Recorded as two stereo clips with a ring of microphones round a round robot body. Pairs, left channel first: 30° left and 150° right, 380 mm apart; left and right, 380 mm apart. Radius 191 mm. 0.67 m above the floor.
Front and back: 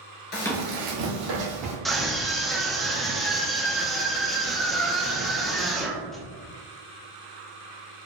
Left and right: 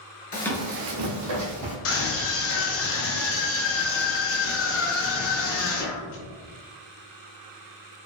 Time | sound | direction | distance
0.3 | running footsteps | 50° left | 0.6 m
1.9 | a scream | 120° left | 0.6 m